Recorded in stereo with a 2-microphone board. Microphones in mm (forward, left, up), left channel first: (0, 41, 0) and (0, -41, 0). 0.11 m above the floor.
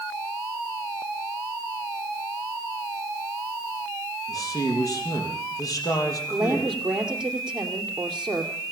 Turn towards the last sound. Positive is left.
turn(degrees=-10)  # may be behind; listen again after turning